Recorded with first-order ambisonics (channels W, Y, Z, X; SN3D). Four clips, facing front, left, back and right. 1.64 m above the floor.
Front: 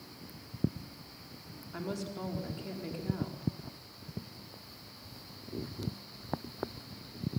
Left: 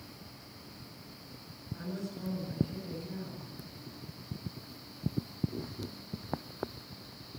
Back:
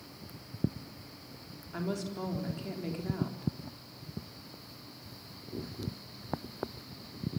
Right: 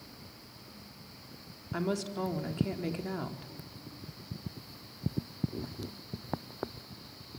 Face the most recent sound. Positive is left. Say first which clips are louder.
# right 7 dB, back 3 dB
turn(degrees=-100)